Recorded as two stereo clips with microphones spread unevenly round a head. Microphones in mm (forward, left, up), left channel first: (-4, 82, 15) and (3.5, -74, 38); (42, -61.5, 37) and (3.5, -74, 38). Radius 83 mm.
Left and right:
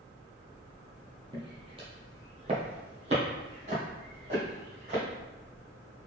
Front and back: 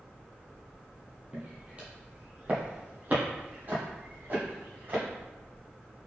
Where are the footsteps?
120° right, 1.5 m; by 5.0 s 130° right, 3 m.